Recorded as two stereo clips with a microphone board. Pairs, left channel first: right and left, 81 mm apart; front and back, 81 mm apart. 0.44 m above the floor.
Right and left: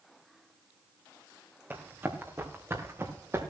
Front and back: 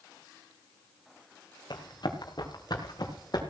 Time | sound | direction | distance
1.7 | running footsteps | 25° left | 3 m